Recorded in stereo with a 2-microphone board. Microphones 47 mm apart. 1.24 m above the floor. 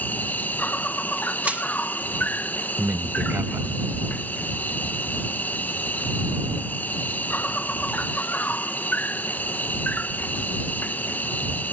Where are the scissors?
I don't hear scissors.